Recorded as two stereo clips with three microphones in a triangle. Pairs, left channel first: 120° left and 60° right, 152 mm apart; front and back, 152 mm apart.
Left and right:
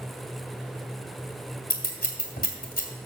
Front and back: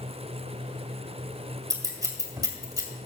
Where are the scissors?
115° left, 1.8 m.